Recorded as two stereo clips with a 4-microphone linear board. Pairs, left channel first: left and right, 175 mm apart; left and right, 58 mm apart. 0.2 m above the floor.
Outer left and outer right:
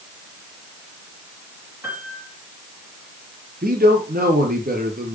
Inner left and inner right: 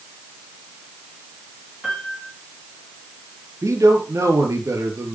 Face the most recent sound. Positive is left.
turn(degrees=-55)  # may be behind; listen again after turning